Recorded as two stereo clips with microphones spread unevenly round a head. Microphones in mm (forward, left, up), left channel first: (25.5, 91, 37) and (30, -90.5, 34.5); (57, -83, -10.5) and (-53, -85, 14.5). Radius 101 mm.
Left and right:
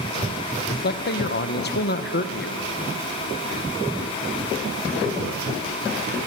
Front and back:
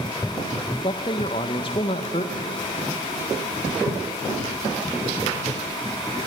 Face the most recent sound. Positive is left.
turn(degrees=55)